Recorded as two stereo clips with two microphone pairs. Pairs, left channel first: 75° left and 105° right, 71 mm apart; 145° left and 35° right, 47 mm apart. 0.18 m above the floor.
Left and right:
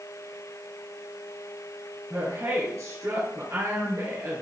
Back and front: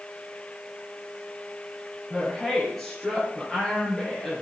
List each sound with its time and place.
2.1 s a woman speaking: 130° right, 3.5 m